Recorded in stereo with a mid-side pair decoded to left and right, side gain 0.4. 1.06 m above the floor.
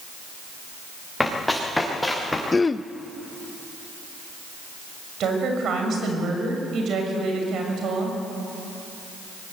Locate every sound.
1.2 s running footsteps: 10° left, 6.5 m
2.5 s throat clearing: 30° left, 0.8 m
5.2 s a woman speaking: 70° right, 6.5 m